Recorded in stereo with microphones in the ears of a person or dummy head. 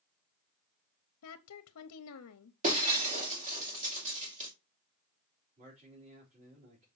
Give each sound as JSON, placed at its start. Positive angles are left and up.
{"t": 1.2, "sound": "a woman speaking", "side_deg": 75, "distance_m": 0.8}
{"t": 2.6, "sound": "breaking glass", "side_deg": -45, "distance_m": 2.0}
{"t": 5.6, "sound": "a man speaking", "side_deg": -45, "distance_m": 4.5}